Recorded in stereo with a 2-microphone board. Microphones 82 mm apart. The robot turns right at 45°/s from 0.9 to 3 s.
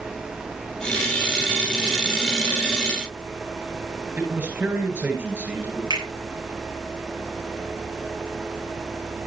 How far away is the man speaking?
About 8 m.